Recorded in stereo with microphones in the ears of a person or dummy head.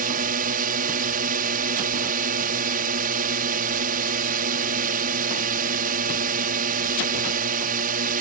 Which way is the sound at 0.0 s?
45° right (ahead or behind).